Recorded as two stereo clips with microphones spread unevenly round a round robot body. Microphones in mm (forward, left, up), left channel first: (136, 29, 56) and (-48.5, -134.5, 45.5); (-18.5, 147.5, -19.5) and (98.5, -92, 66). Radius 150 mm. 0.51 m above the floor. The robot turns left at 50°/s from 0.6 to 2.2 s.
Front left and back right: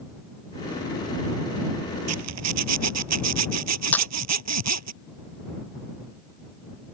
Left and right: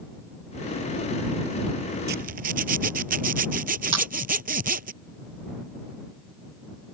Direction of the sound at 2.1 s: 120° right.